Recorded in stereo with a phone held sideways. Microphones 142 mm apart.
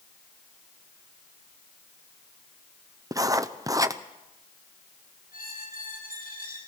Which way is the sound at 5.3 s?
75° left (ahead or behind).